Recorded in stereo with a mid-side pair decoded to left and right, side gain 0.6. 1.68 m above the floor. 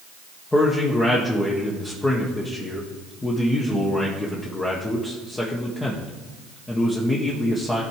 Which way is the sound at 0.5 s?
15° left.